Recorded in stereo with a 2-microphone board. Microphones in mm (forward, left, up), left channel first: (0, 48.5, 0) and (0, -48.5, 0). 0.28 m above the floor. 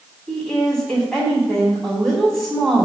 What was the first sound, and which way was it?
A woman speaking, 5° left (ahead or behind).